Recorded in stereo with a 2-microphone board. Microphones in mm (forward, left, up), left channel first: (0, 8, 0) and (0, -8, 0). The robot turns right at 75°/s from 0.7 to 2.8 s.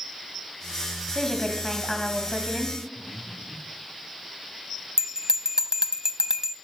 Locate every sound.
1.1 s a woman speaking: 25° left (ahead or behind), 1.6 m; by 2.8 s 25° right (ahead or behind), 1.6 m
3.0 s breathing: 20° left (ahead or behind), 7 m
5.0 s a bell: 30° right (ahead or behind), 0.6 m